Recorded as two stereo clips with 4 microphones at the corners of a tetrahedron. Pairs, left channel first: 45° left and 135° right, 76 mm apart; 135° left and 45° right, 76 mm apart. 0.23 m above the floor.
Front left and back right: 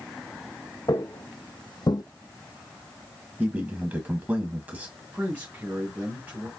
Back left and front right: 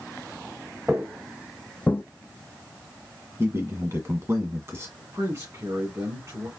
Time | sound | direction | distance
0.9 | footsteps | 20° left | 1.3 m
3.4 | a man speaking | 75° right | 1.5 m
5.0 | a man speaking | 75° right | 2.5 m